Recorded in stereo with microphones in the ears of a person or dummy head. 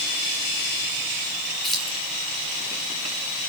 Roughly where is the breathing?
I don't hear breathing.